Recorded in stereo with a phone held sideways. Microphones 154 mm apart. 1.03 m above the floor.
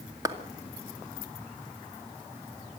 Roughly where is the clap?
Right.